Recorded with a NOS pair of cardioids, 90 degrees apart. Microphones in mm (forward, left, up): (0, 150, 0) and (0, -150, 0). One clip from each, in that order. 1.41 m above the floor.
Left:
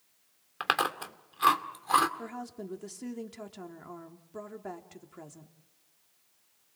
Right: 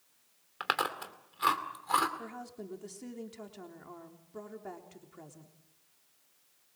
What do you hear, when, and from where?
0.6 s chewing: 20° left, 2.5 m
2.2 s a woman speaking: 25° left, 3.5 m